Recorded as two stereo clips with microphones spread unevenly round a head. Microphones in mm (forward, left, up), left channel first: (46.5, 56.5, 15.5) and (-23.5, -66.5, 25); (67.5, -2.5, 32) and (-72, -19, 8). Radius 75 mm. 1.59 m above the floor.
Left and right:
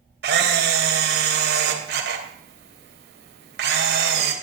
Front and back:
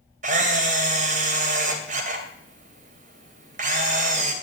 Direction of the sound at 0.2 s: 135° right.